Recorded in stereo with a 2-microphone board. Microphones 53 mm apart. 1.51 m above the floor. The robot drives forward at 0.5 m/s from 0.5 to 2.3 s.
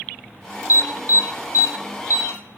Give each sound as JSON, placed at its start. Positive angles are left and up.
{"t": 0.7, "sound": "an alarm", "side_deg": 65, "distance_m": 1.9}